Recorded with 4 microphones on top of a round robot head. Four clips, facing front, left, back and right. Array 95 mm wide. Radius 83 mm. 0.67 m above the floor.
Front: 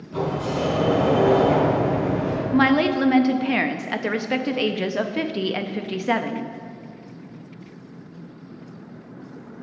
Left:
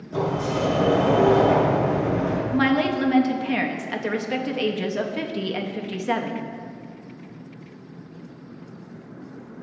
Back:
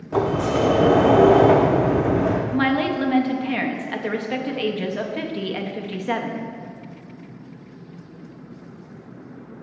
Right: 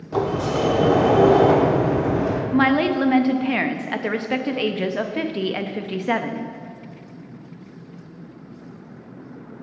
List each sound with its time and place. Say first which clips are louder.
0.1 s a sliding door: right 3 dB, back 5 dB; 150° right, 0.5 m
2.5 s a woman speaking: right 3 dB, front 2 dB; 45° right, 0.5 m